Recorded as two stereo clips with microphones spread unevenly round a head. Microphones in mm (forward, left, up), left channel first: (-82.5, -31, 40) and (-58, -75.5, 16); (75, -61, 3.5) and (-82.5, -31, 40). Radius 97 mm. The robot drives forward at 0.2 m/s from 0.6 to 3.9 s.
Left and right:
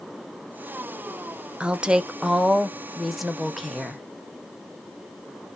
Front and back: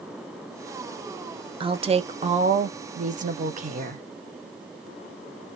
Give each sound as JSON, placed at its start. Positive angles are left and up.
{"t": 1.6, "sound": "a woman speaking", "azimuth_deg": -130, "distance_m": 0.6}